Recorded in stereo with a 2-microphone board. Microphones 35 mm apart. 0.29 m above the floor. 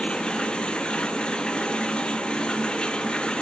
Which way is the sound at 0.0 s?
30° left (ahead or behind).